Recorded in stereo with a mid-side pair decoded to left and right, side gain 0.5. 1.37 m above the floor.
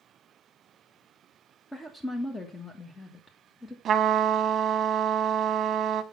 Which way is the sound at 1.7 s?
20° left.